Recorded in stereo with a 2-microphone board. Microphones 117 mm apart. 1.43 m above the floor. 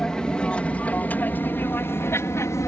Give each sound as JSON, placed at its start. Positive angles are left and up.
{"t": 0.0, "sound": "an aircraft", "side_deg": 5}